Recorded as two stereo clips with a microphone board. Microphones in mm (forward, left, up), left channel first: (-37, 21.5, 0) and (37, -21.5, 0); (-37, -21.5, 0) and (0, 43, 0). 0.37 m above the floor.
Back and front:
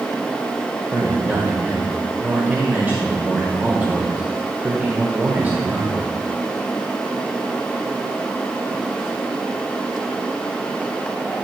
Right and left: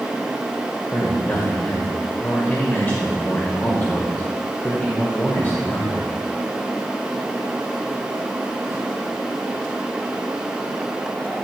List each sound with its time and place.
0.9 s a man speaking: 80° right, 1.7 m